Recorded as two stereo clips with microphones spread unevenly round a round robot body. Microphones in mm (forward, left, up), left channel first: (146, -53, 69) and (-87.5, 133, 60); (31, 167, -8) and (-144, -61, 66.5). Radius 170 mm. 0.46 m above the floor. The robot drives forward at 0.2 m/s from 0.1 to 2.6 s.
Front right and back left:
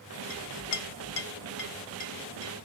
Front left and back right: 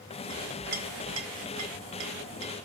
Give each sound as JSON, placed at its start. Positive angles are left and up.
{"t": 0.3, "sound": "a clink", "azimuth_deg": -55, "distance_m": 0.6}